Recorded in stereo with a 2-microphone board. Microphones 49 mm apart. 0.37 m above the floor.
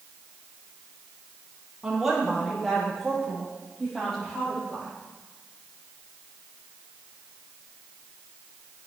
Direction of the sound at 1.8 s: 5° right (ahead or behind).